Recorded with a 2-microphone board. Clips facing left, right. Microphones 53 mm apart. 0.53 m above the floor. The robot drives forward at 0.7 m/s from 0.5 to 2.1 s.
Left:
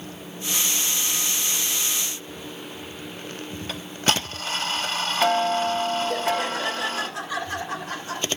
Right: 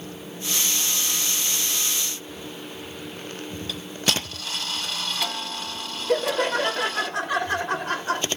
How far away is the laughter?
About 2.5 m.